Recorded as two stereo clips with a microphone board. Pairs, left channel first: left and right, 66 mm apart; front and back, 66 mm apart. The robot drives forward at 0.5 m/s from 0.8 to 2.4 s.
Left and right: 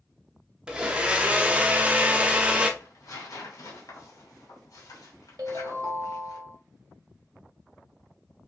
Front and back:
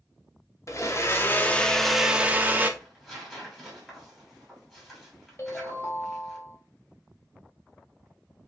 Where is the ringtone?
55° right, 1.4 m.